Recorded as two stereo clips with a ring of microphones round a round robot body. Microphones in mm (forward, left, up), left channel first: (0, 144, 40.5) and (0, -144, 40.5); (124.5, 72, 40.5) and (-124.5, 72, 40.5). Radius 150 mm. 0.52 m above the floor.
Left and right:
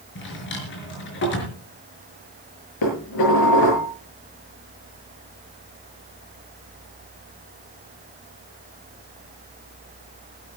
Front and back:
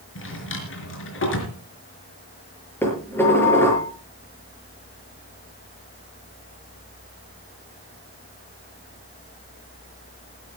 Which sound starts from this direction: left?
Dishes clattering, at 2.8 s.